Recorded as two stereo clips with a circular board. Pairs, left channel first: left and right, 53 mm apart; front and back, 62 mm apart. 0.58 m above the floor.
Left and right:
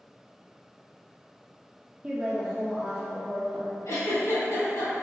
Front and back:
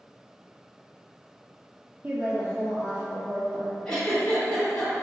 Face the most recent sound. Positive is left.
turn(degrees=80)